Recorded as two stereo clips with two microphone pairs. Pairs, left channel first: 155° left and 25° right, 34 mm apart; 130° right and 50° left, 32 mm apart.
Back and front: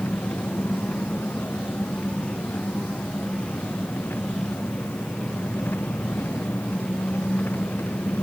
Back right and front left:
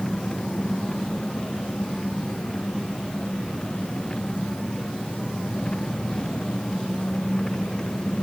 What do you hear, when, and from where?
0.0 s an engine running: 160° left